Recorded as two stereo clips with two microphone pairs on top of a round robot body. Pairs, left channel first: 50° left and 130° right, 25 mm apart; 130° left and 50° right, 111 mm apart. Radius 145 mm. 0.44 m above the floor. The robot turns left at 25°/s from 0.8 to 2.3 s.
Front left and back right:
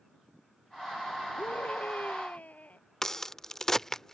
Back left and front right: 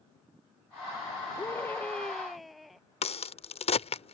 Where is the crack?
125° left.